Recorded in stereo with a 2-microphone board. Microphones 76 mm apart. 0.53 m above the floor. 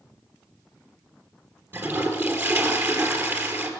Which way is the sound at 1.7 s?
35° right (ahead or behind).